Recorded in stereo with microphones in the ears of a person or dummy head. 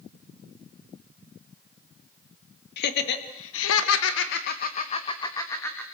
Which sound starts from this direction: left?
Laughter, at 2.8 s.